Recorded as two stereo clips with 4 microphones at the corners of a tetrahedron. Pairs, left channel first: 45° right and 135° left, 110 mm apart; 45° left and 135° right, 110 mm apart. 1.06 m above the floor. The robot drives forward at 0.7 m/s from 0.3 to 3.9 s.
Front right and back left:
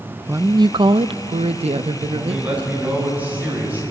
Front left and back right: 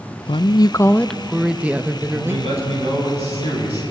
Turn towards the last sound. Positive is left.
turn(degrees=-155)